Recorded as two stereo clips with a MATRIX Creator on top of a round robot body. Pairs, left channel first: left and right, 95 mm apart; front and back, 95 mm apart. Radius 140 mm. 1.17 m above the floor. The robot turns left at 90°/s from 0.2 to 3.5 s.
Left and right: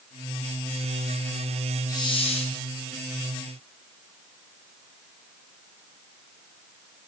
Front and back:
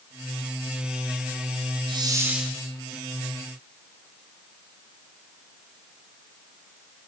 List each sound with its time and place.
1.9 s a hiss: 145° left, 3.5 m; by 2.5 s 90° left, 3.5 m